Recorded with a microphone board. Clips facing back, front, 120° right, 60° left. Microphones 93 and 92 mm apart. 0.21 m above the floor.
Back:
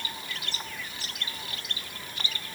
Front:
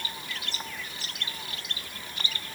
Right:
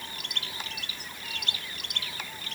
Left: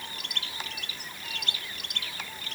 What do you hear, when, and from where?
Only background noise.